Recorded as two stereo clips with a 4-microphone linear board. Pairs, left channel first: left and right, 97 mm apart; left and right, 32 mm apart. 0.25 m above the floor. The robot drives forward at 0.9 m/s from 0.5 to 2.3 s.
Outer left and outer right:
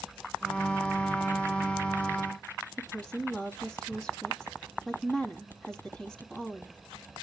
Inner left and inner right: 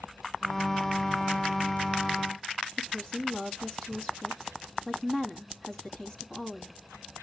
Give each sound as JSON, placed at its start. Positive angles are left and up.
{"t": 2.8, "sound": "a woman speaking", "side_deg": 5, "distance_m": 2.5}